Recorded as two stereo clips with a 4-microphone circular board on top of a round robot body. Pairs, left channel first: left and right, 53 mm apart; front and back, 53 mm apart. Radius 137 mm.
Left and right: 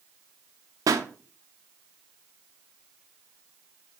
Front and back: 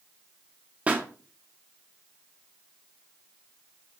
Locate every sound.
0.9 s a pop: 110° right, 0.6 m